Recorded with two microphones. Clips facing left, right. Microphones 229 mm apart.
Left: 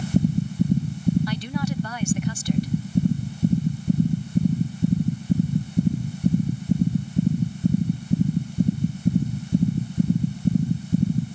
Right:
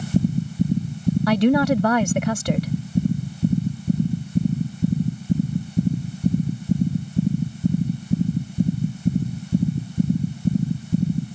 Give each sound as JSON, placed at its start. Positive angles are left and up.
{"t": 1.3, "sound": "a woman speaking", "side_deg": -90}